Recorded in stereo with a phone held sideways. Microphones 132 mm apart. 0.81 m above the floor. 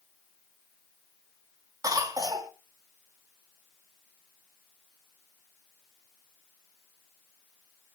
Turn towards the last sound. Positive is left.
turn(degrees=-25)  # may be behind; listen again after turning